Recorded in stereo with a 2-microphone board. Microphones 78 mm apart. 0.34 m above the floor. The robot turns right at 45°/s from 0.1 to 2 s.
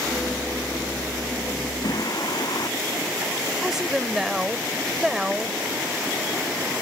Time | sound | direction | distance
1.8 | singing | 65° left (ahead or behind) | ?
3.6 | a woman speaking | 5° right (ahead or behind) | ?